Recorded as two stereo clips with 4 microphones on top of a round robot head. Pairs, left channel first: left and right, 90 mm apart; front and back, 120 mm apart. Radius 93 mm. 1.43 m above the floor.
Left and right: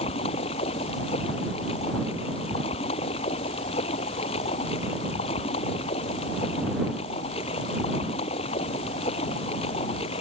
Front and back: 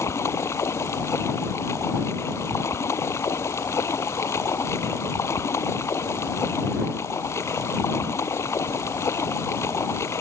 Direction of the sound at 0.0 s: 65° left.